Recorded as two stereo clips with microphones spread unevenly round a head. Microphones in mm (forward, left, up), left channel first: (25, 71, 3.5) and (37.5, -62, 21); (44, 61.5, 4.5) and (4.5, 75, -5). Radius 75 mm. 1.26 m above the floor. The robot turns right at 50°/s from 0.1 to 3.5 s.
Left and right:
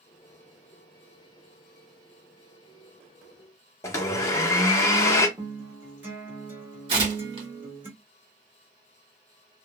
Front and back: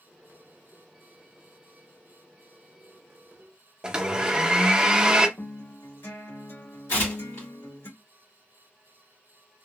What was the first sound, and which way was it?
A blender, 135° left.